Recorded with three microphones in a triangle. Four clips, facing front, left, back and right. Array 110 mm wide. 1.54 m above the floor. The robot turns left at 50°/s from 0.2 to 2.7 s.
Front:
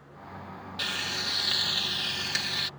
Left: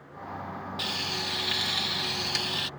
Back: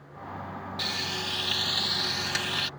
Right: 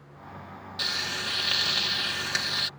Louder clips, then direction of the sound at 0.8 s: Right 4 dB, front 1 dB; 45° right.